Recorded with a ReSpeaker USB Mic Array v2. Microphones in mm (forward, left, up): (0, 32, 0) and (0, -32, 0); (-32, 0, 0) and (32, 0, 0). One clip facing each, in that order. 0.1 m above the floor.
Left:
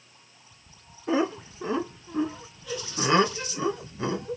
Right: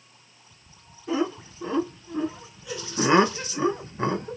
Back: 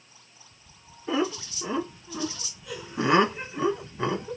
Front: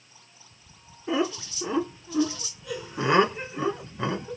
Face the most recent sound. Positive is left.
turn(degrees=-90)